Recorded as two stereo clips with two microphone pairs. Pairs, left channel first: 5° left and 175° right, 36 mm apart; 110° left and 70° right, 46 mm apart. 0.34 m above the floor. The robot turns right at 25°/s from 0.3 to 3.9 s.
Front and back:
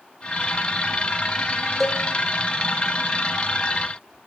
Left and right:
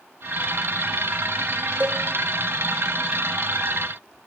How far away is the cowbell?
About 1.0 m.